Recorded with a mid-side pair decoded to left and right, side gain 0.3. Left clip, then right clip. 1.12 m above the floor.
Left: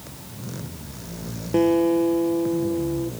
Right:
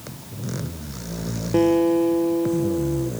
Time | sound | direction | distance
1.5 | a guitar | 10° right | ?